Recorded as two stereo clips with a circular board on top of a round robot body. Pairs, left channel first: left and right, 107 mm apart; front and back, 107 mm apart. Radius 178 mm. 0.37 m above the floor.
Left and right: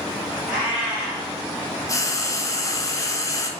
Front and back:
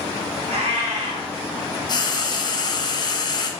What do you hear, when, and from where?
0.5 s a cat meowing: 170° right, 0.9 m
1.9 s frying: 35° left, 0.7 m